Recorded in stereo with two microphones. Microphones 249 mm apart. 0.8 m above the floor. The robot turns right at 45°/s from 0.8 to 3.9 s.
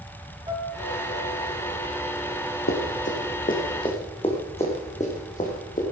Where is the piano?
160° right, 3 m; by 1.5 s 130° right, 3 m.